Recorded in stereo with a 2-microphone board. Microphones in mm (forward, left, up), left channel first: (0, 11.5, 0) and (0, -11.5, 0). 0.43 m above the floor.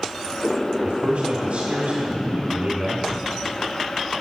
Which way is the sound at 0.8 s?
55° right (ahead or behind).